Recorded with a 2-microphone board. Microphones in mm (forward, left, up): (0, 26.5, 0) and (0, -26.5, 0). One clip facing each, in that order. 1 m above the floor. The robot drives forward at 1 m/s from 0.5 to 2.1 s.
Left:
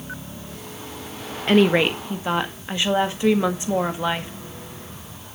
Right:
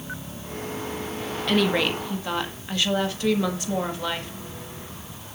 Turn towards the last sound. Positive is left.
turn(degrees=20)  # may be behind; listen again after turning